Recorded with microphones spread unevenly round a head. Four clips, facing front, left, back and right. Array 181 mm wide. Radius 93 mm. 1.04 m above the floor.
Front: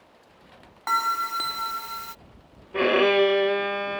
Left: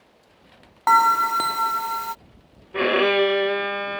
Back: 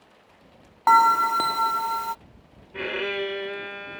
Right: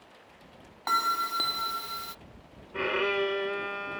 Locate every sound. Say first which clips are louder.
0.9 s a bell: left 12 dB, back 8 dB; 145° left
2.7 s a violin: left 9 dB, front 10 dB; 45° left